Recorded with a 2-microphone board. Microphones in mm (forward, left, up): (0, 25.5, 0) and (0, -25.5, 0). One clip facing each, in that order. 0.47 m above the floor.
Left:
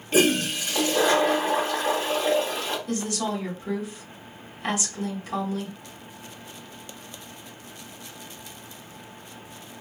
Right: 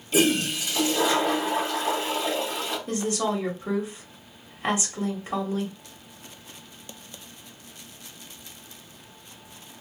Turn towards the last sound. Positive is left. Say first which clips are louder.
# right 5 dB
turn(degrees=-25)  # may be behind; listen again after turning